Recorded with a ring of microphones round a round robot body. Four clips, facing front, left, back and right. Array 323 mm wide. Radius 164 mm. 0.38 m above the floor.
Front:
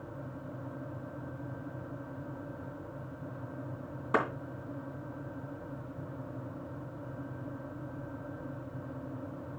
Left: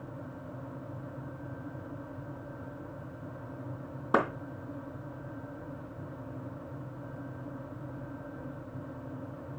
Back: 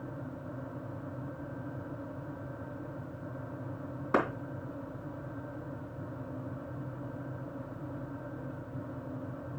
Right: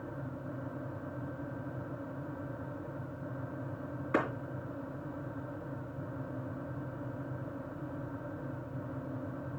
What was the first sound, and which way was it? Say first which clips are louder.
A clap: left 4 dB, back 1 dB; 95° left.